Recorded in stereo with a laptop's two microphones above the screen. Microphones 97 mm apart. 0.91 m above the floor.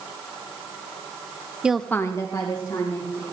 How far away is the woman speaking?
About 0.6 m.